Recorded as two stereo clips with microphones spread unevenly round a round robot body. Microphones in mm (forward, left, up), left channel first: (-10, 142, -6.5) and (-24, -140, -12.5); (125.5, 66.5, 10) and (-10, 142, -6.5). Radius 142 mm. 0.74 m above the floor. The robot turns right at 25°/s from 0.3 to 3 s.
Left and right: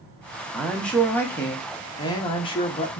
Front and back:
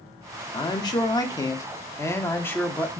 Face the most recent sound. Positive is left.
turn(degrees=55)